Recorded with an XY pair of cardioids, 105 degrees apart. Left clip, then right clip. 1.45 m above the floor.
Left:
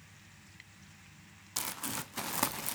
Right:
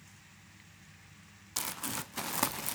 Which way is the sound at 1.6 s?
5° right.